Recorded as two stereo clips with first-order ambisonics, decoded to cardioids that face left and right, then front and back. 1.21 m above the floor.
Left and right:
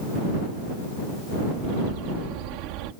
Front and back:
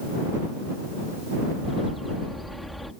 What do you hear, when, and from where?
1.6 s a bird: 85° right